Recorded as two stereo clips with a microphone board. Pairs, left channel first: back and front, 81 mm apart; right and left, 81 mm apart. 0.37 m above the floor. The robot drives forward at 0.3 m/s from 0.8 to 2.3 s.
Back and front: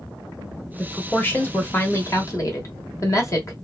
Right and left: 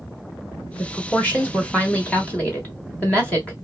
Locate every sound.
0.8 s a woman speaking: 125° right, 0.9 m; by 3.5 s 155° right, 1.1 m